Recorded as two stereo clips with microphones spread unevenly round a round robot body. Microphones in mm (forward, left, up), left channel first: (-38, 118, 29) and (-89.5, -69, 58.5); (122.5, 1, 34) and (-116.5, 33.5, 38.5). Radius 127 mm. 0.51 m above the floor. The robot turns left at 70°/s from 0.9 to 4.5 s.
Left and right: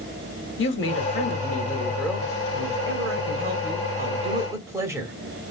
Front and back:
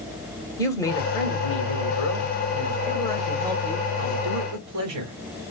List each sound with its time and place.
0.6 s a woman speaking: 70° left, 2.5 m; by 5.2 s 175° left, 2.5 m